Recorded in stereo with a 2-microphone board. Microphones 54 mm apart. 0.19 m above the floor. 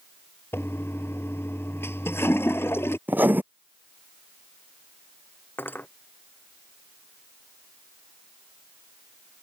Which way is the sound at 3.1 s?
35° right (ahead or behind).